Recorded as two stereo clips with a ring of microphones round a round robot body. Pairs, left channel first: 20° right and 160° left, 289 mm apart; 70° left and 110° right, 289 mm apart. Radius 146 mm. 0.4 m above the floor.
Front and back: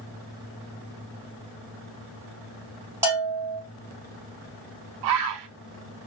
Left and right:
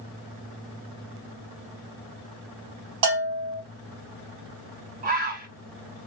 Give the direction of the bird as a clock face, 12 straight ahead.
6 o'clock.